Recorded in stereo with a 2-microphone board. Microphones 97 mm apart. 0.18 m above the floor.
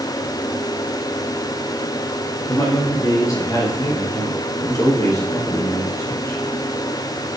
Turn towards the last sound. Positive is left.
turn(degrees=30)  # may be behind; listen again after turning